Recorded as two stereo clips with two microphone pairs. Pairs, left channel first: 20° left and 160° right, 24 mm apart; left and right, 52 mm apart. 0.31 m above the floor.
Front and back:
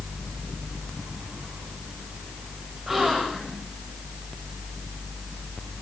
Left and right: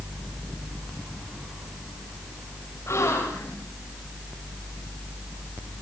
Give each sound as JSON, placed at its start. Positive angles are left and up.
{"t": 2.9, "sound": "a gasp", "azimuth_deg": 120, "distance_m": 9.5}